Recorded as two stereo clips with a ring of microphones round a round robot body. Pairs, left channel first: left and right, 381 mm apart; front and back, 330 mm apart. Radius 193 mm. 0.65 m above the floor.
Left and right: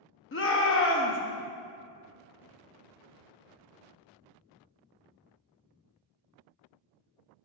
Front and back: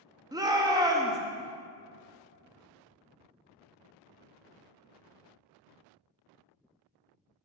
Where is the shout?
110° left, 0.7 m.